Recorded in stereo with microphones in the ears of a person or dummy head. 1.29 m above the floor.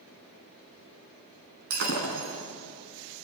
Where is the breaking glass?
45° right (ahead or behind), 3.5 m.